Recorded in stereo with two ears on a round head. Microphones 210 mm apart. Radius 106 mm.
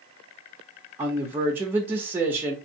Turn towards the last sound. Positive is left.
turn(degrees=-10)  # may be behind; listen again after turning